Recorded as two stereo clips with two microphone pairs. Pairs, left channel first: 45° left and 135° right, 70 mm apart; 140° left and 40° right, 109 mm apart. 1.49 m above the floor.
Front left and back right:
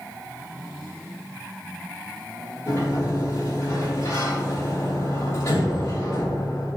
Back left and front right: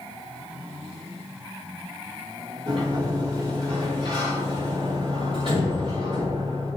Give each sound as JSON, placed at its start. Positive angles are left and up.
{"t": 2.7, "sound": "a sliding door", "azimuth_deg": -5, "distance_m": 3.0}